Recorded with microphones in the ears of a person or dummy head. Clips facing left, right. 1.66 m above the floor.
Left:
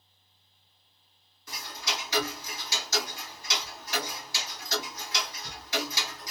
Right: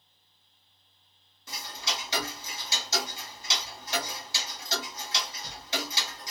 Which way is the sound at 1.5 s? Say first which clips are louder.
Left 1 dB; 25° right (ahead or behind).